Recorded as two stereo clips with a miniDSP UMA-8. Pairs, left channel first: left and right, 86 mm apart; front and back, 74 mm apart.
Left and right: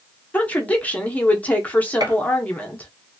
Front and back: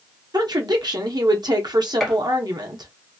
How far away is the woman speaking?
About 0.9 m.